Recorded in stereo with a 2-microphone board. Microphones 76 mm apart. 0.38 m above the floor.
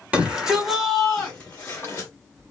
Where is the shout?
20° right (ahead or behind), 1.2 m; by 2.1 s 30° left (ahead or behind), 1.3 m.